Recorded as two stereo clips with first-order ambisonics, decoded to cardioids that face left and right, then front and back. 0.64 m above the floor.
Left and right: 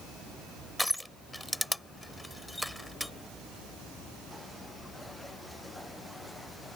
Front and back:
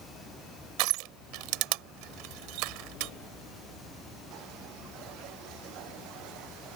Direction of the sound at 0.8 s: Straight behind.